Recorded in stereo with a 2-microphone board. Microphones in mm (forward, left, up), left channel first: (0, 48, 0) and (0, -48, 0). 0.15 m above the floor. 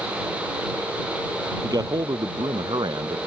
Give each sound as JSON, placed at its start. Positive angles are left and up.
{"t": 1.6, "sound": "a man speaking", "side_deg": -40}